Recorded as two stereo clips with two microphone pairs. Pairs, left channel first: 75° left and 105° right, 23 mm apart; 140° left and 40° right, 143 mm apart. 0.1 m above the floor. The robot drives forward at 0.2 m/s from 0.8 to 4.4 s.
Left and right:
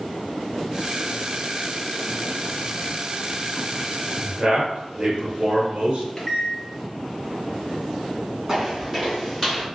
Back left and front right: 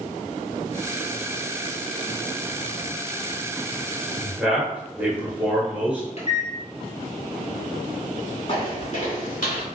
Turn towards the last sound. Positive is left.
turn(degrees=155)